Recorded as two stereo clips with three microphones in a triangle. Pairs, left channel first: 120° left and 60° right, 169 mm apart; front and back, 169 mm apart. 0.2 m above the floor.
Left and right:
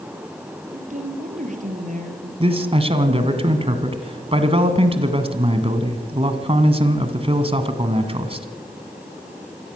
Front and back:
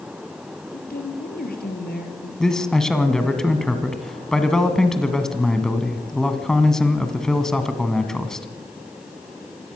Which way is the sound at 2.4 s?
85° right.